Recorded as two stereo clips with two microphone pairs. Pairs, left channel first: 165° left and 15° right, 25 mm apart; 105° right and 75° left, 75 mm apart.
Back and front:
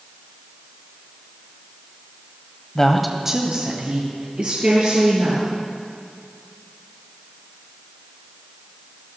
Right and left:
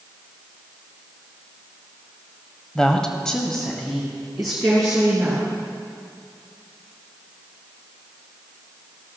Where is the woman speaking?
175° right, 1.0 m; by 5.5 s 20° right, 3.5 m.